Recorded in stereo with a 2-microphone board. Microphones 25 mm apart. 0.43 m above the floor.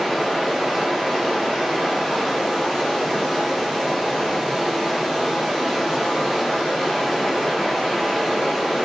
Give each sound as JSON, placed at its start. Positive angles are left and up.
{"t": 0.0, "sound": "running water", "side_deg": -5, "distance_m": 6.5}